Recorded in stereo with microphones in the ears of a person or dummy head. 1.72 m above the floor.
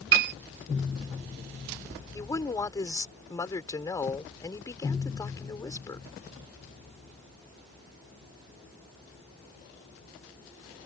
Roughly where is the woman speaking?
Centre.